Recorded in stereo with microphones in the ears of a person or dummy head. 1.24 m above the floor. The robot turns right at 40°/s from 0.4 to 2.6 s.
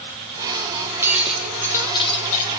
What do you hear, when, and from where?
1.0 s breaking glass: 15° right, 5.5 m; by 2.5 s 45° left, 5.5 m